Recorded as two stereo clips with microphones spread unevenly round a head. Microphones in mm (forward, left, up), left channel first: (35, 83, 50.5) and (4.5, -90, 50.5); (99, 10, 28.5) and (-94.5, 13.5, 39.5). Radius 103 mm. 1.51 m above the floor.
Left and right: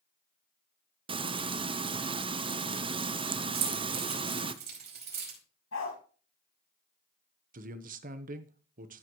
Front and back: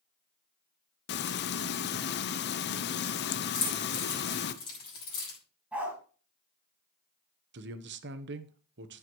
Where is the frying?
35° right, 0.6 m.